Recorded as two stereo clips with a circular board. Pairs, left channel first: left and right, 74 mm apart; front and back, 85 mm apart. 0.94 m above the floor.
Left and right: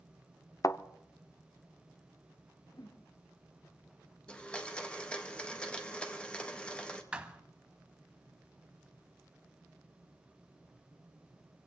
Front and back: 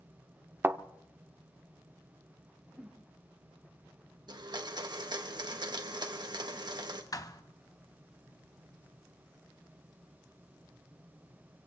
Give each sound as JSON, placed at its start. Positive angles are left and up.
{"t": 0.6, "sound": "a thud", "azimuth_deg": 120, "distance_m": 0.7}
{"t": 2.7, "sound": "a whoosh", "azimuth_deg": 100, "distance_m": 1.7}
{"t": 4.3, "sound": "a blender", "azimuth_deg": 165, "distance_m": 1.4}
{"t": 7.1, "sound": "a thud", "azimuth_deg": -20, "distance_m": 1.0}